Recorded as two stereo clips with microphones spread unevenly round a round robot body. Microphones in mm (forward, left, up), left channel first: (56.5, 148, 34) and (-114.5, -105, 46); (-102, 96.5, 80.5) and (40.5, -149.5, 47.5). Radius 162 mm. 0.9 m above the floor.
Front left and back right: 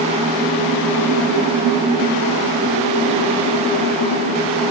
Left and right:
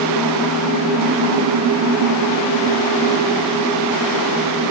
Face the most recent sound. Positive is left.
No sound to turn to.